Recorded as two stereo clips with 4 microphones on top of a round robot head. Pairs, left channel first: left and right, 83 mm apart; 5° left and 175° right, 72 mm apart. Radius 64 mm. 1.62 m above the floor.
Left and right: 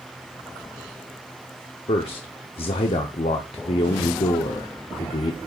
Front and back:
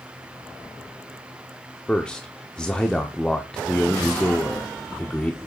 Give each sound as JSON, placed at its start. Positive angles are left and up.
{"t": 1.9, "sound": "a man speaking", "azimuth_deg": 80, "distance_m": 0.8}